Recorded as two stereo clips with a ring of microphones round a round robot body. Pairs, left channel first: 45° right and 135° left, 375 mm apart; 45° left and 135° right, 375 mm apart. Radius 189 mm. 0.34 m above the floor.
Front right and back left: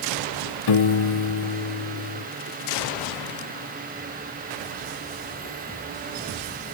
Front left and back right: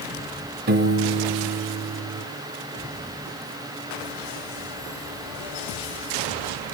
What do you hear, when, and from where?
0.7 s a piano: 75° right, 1.2 m